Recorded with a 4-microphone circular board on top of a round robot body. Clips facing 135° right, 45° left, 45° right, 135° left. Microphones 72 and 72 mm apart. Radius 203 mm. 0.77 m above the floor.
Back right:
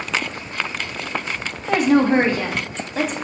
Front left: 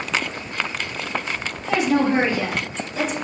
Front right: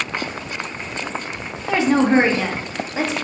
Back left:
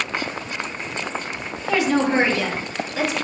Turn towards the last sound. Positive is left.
turn(degrees=-105)